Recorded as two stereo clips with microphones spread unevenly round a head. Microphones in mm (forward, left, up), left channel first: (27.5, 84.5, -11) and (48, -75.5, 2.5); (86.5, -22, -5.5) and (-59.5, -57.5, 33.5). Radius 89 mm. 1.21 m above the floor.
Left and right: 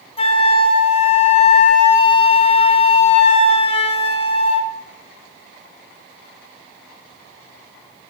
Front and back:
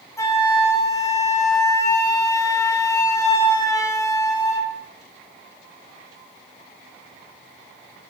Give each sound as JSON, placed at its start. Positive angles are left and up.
{"t": 0.2, "sound": "a flute", "azimuth_deg": 60, "distance_m": 0.7}